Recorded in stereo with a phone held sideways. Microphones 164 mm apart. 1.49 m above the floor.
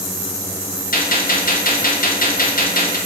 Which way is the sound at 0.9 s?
55° left (ahead or behind).